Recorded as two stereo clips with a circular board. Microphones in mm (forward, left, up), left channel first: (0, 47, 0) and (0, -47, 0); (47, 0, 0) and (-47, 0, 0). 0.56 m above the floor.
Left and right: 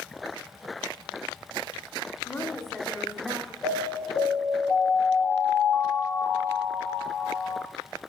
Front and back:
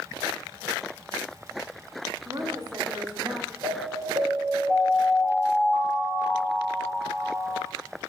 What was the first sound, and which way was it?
A woman speaking, 150° left.